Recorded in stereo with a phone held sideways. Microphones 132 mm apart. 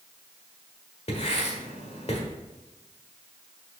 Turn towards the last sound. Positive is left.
turn(degrees=50)  # may be behind; listen again after turning